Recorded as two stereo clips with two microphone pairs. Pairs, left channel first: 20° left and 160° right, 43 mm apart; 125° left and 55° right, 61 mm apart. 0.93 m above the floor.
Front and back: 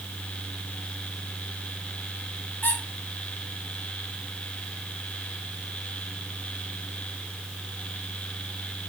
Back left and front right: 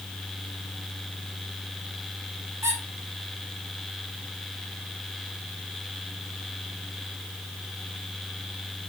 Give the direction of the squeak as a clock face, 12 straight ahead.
1 o'clock.